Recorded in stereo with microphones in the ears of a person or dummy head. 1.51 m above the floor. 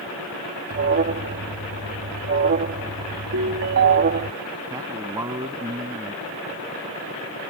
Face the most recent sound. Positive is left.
turn(degrees=-15)  # may be behind; listen again after turning